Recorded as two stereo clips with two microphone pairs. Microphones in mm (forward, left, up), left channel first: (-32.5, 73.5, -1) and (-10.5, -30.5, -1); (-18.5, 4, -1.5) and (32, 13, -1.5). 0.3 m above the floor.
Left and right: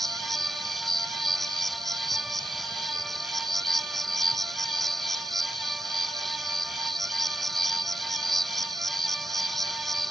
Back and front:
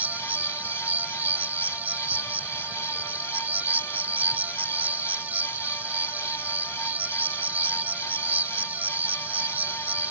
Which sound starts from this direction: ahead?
An insect, at 0.0 s.